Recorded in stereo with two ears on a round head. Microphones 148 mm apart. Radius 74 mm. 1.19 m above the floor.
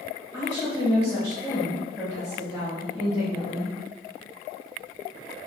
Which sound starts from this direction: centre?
A woman speaking, at 0.3 s.